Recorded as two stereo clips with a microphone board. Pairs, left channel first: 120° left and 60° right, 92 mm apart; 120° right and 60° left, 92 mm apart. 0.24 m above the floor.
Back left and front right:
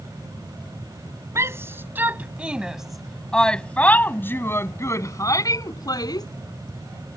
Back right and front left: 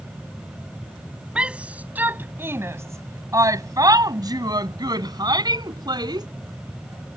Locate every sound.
1.4 s a shout: 15° right; by 6.3 s 90° left